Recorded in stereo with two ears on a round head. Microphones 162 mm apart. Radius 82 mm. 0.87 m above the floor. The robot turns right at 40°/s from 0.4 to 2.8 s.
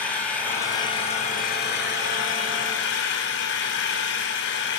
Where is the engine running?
5° left, 6 m; by 4.8 s 100° left, 6 m.